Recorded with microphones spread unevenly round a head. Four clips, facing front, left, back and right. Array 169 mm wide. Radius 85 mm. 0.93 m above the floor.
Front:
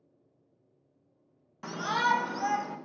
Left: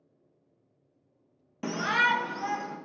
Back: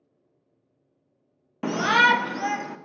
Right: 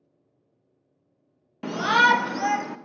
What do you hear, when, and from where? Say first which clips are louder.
1.6 s a shout: right 7 dB, back 8 dB; straight behind, 0.5 m; by 2.8 s 125° right, 1.6 m